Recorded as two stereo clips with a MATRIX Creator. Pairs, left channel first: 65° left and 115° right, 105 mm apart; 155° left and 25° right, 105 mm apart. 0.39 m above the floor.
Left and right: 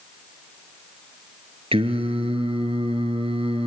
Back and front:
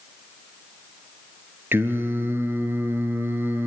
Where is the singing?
90° right, 1.9 m.